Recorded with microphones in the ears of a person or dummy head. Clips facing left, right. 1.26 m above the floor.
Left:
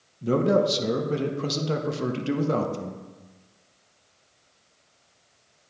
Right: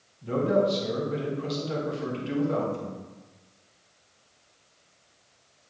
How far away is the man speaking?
About 1.1 m.